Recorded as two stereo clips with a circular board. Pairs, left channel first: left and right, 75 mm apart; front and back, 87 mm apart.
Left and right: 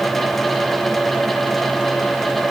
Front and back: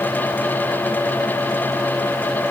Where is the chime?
No chime in this recording.